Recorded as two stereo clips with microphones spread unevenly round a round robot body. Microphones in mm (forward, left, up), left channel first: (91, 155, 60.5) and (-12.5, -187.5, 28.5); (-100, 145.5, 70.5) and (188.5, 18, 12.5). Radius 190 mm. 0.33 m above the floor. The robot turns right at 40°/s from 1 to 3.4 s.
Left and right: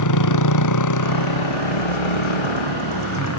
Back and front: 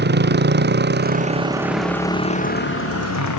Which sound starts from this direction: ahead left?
A motorcycle, at 0.0 s.